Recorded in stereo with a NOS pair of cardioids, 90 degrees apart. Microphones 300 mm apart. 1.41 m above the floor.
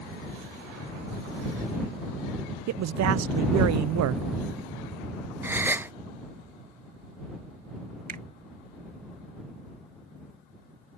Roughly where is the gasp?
Ahead.